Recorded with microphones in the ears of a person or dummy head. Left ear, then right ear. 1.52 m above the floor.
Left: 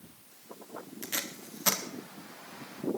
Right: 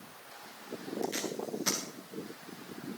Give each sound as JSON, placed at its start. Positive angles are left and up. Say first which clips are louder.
{"t": 1.0, "sound": "tape being pulled", "louder": "right 1 dB", "side_deg": 35, "distance_m": 0.7}